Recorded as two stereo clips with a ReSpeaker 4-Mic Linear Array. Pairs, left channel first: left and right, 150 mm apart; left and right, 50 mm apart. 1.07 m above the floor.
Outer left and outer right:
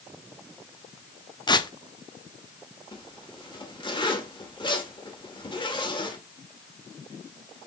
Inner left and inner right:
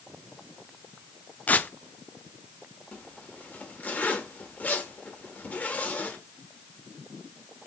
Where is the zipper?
30° left (ahead or behind), 1.4 m.